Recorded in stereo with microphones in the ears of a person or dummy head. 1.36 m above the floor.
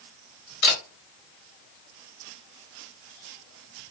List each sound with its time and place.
0.6 s a camera shutter: 65° left (ahead or behind), 1.7 m